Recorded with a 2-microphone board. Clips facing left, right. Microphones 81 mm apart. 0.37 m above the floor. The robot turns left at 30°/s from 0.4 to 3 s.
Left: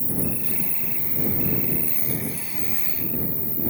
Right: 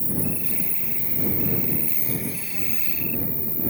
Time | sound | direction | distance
0.0 | an insect | 115° left | ?